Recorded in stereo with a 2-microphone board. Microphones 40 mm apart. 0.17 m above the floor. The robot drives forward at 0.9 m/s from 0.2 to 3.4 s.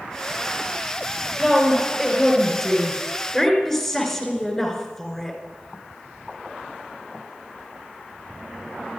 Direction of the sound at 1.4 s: 5° left (ahead or behind).